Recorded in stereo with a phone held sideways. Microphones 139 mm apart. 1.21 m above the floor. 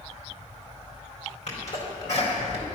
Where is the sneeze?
65° left (ahead or behind), 4 m.